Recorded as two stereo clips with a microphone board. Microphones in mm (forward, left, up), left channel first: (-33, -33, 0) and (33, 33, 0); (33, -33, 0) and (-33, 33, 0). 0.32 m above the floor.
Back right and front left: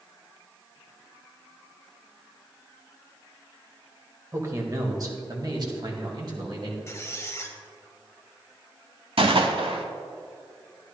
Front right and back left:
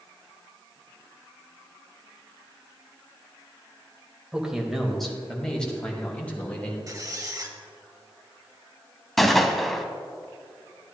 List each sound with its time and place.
4.3 s a man speaking: 60° left, 1.2 m; by 6.8 s 25° left, 2 m
6.9 s a squeak: 175° left, 0.8 m
9.2 s a gunshot: 45° left, 0.7 m